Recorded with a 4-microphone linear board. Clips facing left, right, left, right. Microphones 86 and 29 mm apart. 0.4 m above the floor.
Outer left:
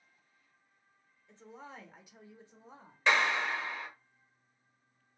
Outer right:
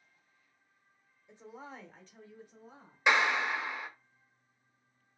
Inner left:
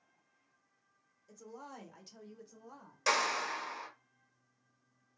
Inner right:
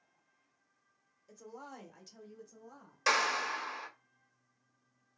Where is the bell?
I don't hear a bell.